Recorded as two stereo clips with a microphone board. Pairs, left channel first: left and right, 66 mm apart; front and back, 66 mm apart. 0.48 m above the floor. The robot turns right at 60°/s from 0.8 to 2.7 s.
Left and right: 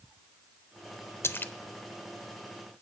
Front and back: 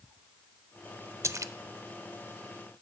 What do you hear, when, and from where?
1.2 s a splash: 135° left, 0.5 m; by 1.5 s 155° left, 0.5 m